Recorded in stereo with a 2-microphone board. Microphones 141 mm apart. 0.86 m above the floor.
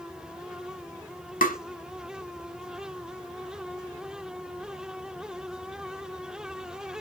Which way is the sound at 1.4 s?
80° left.